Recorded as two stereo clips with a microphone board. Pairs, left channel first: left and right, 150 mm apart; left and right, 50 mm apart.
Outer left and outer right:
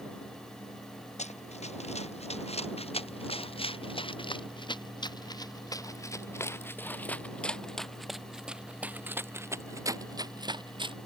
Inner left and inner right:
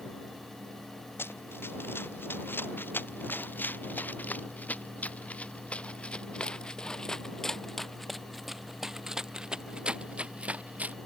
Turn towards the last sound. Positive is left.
turn(degrees=-35)  # may be behind; listen again after turning